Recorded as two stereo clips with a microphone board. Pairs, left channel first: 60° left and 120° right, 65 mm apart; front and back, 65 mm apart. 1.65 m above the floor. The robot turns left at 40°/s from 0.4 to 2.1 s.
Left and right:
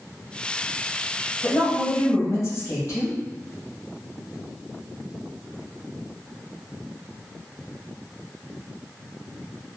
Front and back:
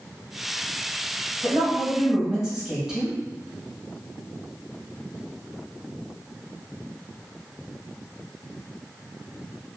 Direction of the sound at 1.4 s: 125° left.